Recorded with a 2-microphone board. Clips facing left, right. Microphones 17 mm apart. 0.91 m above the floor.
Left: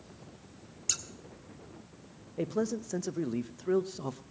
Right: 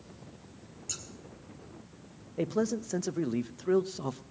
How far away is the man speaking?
About 0.6 m.